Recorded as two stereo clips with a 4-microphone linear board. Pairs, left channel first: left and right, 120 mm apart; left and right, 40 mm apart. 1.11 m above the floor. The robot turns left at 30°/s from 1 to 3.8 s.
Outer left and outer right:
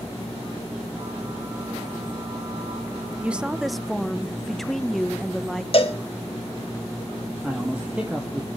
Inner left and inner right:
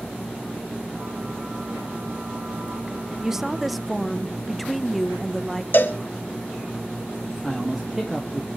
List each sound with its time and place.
3.2 s a woman speaking: 10° right (ahead or behind), 0.9 m; by 5.6 s centre (ahead or behind), 0.9 m
5.7 s a cowbell: 50° left (ahead or behind), 1.8 m
7.4 s a man speaking: 10° right (ahead or behind), 2.0 m